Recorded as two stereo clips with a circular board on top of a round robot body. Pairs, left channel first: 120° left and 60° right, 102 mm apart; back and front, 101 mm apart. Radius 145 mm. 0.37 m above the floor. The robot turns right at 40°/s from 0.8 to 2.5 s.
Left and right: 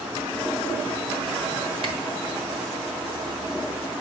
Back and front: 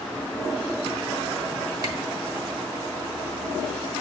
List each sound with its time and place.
1.8 s a camera shutter: 50° right, 1.5 m; by 1.9 s 45° right, 1.5 m